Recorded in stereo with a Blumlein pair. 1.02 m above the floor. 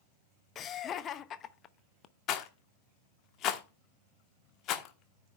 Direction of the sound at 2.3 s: 35° left.